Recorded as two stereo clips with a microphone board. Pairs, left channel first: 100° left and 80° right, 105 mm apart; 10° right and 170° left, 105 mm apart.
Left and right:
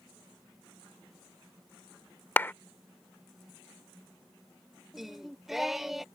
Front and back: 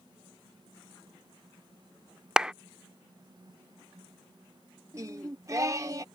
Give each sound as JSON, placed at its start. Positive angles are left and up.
{"t": 2.4, "sound": "a clap", "azimuth_deg": 100}
{"t": 4.9, "sound": "singing", "azimuth_deg": -165}